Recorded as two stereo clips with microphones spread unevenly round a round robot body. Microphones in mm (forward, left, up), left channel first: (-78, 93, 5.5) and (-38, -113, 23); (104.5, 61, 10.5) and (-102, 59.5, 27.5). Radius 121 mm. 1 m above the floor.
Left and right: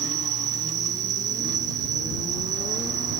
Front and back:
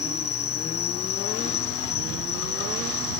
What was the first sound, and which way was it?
An insect, 20° right.